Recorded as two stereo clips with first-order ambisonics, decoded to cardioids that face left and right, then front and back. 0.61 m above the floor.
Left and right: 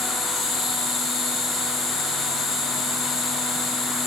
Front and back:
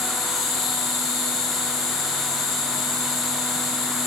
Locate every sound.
0.0 s an insect: 35° left, 8 m